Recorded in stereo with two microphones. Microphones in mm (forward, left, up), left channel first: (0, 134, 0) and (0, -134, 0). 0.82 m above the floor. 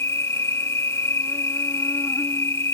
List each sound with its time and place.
0.0 s an insect: 10° left (ahead or behind)